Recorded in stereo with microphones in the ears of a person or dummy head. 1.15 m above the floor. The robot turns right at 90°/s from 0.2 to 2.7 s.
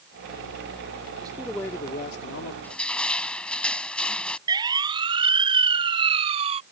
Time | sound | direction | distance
1.2 | a man speaking | 25° right | ?
2.6 | crushing | 10° left (ahead or behind) | ?
4.5 | a siren | 20° right (ahead or behind) | ?